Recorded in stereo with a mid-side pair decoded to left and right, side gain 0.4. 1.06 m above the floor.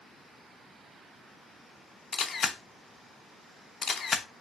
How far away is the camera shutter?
About 0.8 m.